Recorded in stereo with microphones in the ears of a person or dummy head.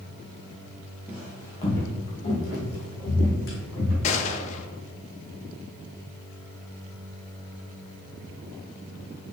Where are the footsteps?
Centre (ahead or behind), 1.4 m; by 3.9 s 70° left (ahead or behind), 4 m.